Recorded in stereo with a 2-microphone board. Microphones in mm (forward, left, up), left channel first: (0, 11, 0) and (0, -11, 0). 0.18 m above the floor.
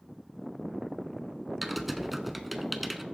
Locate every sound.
1.6 s typing on a keyboard: centre (ahead or behind), 0.6 m